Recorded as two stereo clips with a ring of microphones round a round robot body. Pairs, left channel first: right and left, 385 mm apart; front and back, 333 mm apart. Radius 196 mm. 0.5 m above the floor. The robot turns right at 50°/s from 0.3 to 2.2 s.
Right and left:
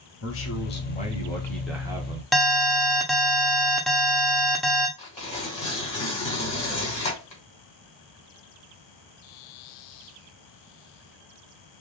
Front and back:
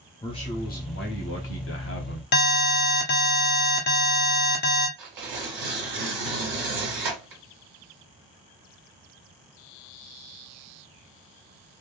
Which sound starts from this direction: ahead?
An alarm, at 2.3 s.